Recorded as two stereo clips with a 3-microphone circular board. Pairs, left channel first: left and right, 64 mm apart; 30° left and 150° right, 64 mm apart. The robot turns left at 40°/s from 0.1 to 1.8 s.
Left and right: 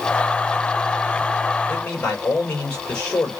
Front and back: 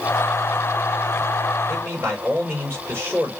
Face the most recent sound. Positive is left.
turn(degrees=155)